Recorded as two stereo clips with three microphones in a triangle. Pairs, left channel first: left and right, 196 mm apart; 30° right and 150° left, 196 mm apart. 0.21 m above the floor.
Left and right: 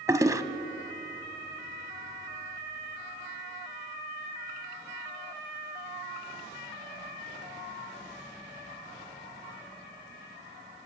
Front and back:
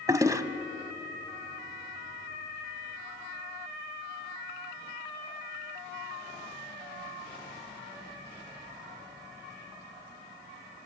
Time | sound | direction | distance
0.1 | a toilet flushing | 150° right | 0.8 m